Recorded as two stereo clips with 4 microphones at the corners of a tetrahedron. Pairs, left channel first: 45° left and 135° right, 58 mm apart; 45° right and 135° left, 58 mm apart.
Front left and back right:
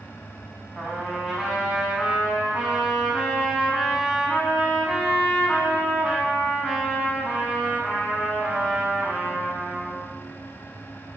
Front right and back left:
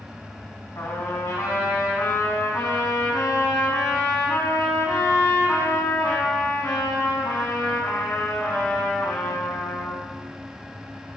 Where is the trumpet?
55° right, 3.5 m.